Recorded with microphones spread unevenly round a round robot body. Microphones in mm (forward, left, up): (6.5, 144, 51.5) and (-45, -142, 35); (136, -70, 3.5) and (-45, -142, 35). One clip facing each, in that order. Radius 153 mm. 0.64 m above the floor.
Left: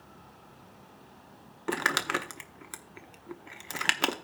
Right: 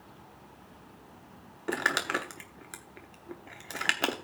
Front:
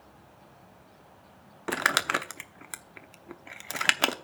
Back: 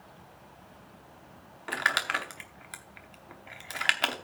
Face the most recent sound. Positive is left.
turn(degrees=0)